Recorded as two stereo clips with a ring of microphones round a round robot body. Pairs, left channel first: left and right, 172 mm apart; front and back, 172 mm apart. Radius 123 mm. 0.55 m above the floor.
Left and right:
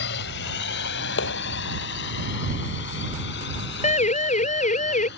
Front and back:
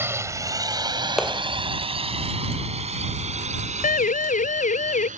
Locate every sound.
0.0 s a drone: 105° left; by 5.2 s 135° left
1.2 s a clap: 90° left
3.8 s a siren: 40° left; by 5.1 s 45° left